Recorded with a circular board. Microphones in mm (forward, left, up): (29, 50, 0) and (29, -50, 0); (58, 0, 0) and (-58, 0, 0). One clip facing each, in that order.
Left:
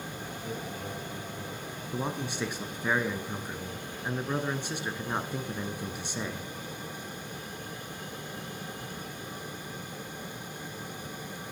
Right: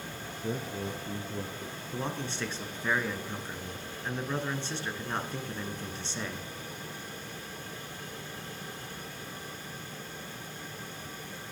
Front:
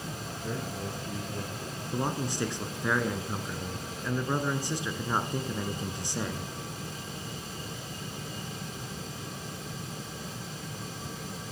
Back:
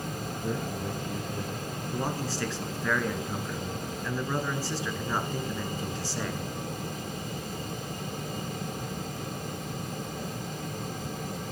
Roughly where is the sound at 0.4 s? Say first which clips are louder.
Right 5 dB, back 3 dB; right.